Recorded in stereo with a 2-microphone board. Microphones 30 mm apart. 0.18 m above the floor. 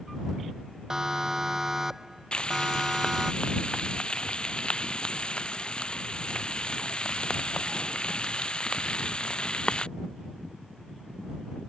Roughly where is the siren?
Right.